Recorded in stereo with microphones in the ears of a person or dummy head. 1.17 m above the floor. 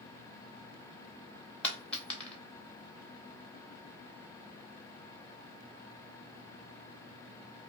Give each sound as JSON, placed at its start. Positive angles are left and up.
{"t": 1.6, "sound": "a dropped coin", "side_deg": 5, "distance_m": 0.8}